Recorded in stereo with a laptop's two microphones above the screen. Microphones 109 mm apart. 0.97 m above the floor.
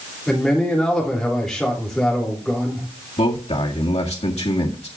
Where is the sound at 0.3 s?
5° left (ahead or behind), 3 m.